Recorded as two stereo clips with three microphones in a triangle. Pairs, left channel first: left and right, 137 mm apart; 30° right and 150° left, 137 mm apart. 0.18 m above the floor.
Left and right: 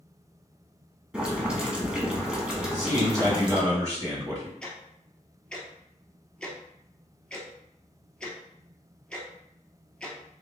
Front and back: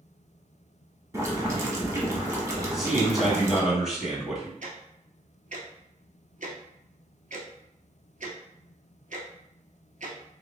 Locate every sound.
1.1 s boiling: 165° right, 1.0 m
2.6 s a man speaking: 125° right, 1.8 m
4.6 s ticking: 170° left, 0.8 m